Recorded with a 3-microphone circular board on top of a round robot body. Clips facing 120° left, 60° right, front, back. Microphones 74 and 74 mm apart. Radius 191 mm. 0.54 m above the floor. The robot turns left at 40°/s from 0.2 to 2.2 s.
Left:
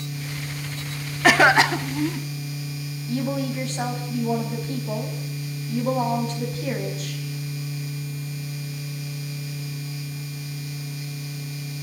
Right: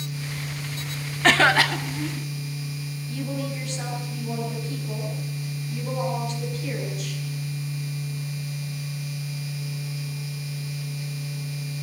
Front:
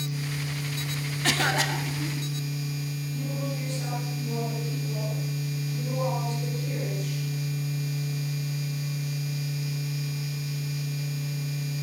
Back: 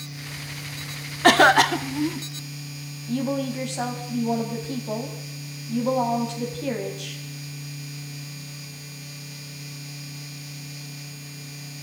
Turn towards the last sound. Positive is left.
turn(degrees=170)